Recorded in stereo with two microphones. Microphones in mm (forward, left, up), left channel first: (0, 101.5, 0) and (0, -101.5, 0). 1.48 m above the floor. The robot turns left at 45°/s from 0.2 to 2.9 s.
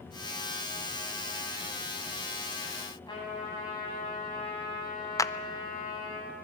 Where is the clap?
15° left (ahead or behind), 0.6 m.